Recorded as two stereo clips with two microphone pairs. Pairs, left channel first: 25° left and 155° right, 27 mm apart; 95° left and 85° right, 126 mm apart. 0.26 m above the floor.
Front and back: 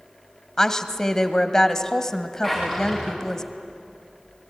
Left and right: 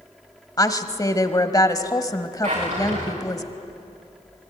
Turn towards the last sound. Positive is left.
turn(degrees=-65)